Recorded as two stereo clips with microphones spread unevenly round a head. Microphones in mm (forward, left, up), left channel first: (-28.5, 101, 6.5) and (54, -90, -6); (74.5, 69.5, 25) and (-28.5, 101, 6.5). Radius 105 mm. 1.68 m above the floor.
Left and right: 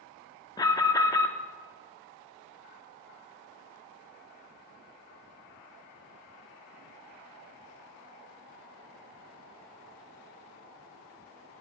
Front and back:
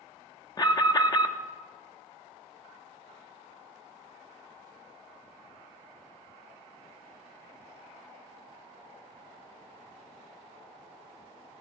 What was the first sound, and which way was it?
An alarm, 40° left.